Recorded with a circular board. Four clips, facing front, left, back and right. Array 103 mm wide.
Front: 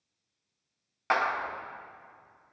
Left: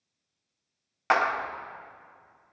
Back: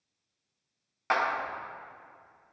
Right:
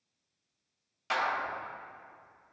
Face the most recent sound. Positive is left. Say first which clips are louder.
# left 6 dB, even
turn(degrees=85)